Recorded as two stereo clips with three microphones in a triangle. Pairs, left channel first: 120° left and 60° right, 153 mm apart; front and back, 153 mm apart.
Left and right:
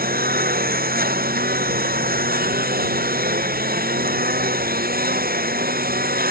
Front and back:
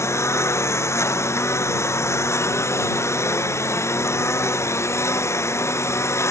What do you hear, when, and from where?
0.0 s a lawn mower: 75° right